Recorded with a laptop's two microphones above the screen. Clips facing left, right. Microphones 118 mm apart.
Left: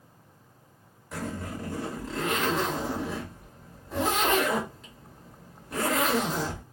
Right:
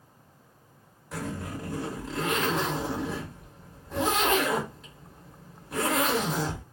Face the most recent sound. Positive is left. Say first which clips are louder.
# even
turn(degrees=0)  # may be behind; listen again after turning